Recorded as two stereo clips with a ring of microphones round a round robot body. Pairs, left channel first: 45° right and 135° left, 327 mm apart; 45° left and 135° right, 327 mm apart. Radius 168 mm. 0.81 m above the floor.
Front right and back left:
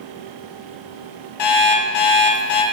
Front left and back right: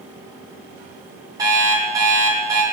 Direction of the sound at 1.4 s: 55° right.